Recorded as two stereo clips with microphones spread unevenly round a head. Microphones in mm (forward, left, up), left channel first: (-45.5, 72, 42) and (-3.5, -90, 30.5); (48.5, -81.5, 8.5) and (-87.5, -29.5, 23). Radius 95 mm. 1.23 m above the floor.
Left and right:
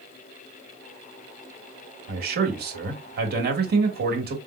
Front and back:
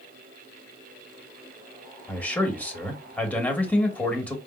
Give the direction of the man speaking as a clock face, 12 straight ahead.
3 o'clock.